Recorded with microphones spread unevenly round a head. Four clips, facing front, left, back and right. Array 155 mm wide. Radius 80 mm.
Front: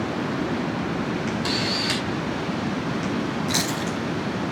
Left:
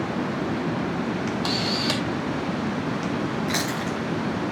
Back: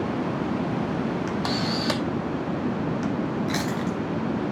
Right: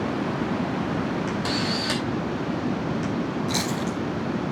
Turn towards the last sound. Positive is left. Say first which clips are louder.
# even, even
turn(degrees=95)